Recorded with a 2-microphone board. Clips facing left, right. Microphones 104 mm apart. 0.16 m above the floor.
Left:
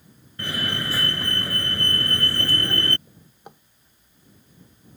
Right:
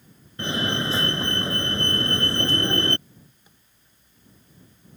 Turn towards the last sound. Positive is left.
turn(degrees=65)  # may be behind; listen again after turning